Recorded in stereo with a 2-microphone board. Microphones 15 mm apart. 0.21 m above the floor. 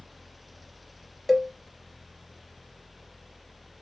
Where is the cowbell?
5° left (ahead or behind), 0.9 m.